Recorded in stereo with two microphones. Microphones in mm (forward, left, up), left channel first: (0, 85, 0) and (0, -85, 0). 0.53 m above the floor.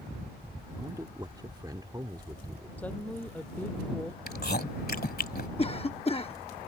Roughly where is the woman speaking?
Centre.